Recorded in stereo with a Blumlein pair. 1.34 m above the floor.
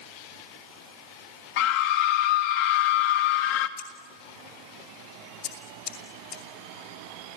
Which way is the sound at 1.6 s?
45° left.